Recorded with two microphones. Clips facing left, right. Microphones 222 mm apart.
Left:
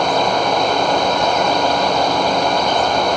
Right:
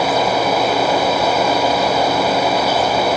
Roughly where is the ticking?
No ticking in this recording.